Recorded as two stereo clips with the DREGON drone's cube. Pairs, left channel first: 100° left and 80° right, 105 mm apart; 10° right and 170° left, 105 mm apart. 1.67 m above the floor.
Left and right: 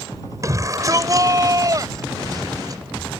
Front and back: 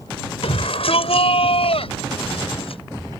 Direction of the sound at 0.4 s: 25° right.